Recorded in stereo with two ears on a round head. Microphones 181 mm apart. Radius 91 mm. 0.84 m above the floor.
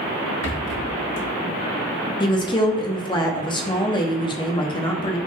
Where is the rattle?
65° left (ahead or behind), 1.2 m.